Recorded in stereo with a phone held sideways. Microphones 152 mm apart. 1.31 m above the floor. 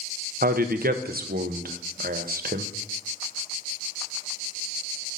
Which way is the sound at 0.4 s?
75° right (ahead or behind).